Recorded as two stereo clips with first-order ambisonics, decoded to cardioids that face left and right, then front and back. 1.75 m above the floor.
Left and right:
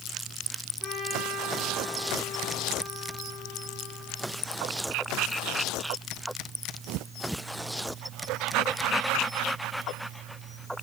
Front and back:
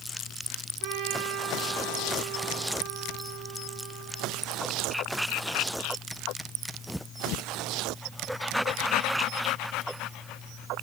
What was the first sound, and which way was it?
A trumpet, 165° left.